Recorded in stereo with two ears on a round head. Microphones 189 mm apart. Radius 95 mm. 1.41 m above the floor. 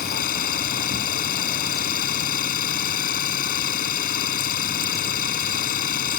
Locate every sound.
0.0 s an engine running: 45° left (ahead or behind)